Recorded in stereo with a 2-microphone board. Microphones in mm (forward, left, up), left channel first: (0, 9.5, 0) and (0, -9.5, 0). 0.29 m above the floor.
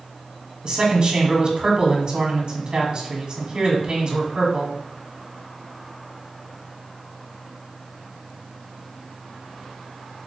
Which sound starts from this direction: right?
A man speaking, at 0.6 s.